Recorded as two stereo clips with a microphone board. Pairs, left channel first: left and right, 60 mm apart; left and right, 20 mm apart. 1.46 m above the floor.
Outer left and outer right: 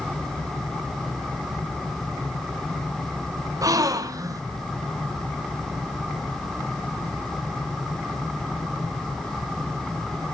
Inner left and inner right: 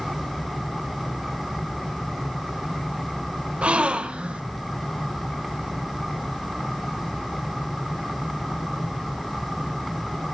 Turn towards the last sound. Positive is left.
turn(degrees=-75)  # may be behind; listen again after turning